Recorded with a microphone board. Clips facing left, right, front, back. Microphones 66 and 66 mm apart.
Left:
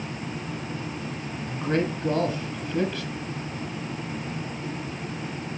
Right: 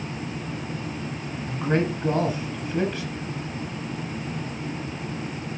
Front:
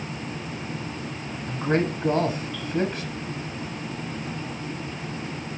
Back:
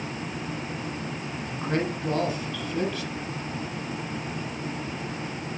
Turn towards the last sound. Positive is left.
turn(degrees=-25)